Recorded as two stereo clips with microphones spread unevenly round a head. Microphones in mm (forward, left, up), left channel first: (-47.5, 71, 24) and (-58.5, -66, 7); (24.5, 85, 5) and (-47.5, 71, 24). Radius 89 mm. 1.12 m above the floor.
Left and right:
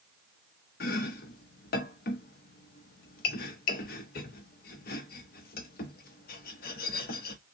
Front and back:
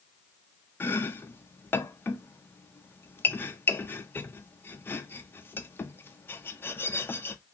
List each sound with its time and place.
0.8 s chopping: 80° left, 0.6 m